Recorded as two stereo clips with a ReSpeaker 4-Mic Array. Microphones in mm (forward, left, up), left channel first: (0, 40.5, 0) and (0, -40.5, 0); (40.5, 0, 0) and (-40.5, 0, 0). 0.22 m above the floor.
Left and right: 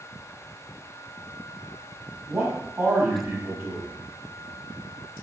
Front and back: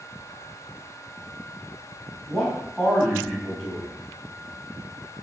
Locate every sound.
2.3 s a man speaking: 85° right, 1.2 m